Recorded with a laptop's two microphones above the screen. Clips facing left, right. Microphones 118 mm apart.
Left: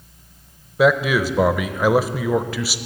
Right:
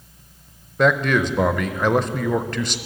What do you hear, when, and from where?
0.8 s a man speaking: 5° left (ahead or behind), 0.6 m